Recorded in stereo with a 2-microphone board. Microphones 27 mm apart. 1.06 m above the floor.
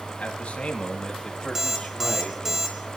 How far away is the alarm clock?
About 1.5 m.